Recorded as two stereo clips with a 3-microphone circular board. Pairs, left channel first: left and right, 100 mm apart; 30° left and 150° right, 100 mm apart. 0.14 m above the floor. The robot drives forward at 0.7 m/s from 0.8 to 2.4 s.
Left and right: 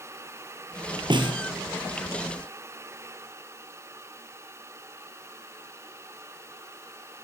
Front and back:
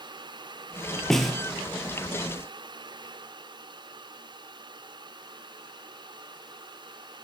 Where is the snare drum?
55° right, 2.5 m; by 1.4 s 60° right, 2.5 m.